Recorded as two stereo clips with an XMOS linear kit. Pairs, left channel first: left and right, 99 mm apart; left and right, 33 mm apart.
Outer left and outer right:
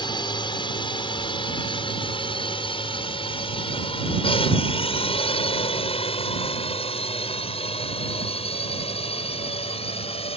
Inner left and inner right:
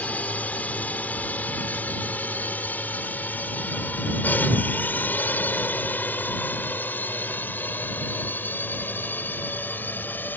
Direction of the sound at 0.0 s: 50° left (ahead or behind).